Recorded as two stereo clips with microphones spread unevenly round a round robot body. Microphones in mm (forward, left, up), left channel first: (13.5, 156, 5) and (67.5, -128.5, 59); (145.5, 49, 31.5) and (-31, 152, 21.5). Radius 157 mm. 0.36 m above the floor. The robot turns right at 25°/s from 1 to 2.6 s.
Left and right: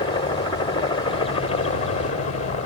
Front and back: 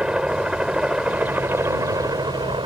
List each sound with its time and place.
0.0 s a helicopter: 70° left; by 2.7 s 110° left